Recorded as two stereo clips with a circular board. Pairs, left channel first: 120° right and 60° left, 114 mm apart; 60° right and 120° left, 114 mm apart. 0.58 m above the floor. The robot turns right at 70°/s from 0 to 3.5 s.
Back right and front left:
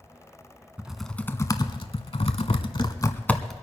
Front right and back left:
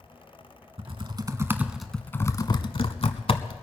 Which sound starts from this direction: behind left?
Typing on a keyboard, at 0.8 s.